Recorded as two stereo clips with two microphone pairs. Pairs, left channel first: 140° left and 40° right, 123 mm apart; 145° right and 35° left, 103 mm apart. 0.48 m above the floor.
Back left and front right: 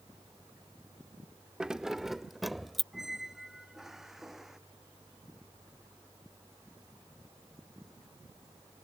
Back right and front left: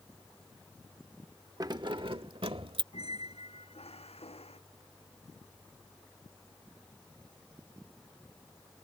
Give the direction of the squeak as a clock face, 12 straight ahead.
4 o'clock.